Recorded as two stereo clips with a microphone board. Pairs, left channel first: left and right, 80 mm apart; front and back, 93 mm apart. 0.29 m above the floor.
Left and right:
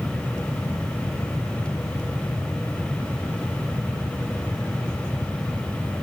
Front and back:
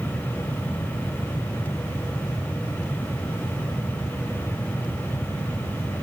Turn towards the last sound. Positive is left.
No sound to turn to.